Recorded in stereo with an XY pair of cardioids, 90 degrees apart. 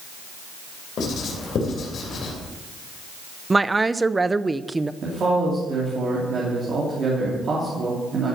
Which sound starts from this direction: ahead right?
A man speaking, at 5.0 s.